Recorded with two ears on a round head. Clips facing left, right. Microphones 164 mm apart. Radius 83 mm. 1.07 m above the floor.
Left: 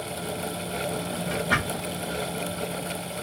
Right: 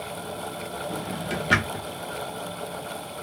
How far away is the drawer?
About 0.9 m.